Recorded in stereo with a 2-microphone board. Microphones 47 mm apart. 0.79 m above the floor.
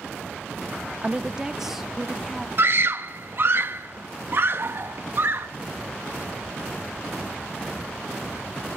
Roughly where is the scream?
Right.